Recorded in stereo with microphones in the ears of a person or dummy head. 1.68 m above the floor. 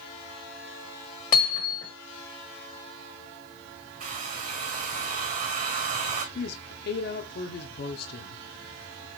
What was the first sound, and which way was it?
Hammering, 40° left (ahead or behind).